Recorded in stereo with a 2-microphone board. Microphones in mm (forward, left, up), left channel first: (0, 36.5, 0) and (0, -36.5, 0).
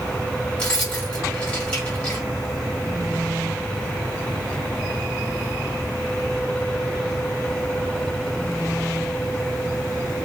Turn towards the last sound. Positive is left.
turn(degrees=15)  # may be behind; listen again after turning